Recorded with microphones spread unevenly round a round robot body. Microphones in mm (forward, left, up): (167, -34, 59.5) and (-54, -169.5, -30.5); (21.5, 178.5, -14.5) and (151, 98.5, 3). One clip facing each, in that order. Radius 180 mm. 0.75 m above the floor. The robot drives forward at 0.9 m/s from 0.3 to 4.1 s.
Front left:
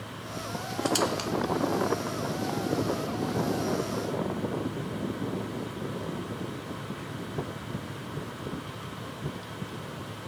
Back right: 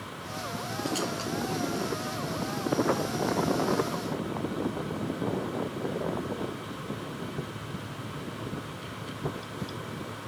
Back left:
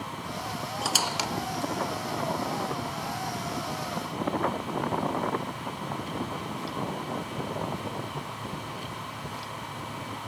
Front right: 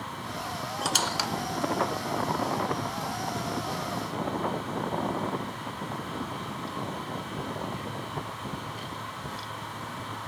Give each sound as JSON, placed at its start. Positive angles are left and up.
{"t": 0.8, "sound": "a squeak", "azimuth_deg": 55, "distance_m": 1.0}